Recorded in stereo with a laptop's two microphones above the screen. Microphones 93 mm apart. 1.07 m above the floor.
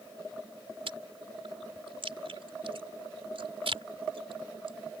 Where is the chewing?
75° right (ahead or behind).